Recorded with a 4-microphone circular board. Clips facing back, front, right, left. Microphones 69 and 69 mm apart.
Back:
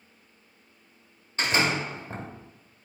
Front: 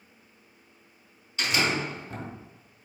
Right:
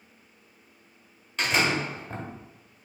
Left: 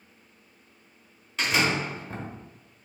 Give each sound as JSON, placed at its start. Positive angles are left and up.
{"t": 1.4, "sound": "a door slam", "azimuth_deg": 175, "distance_m": 1.2}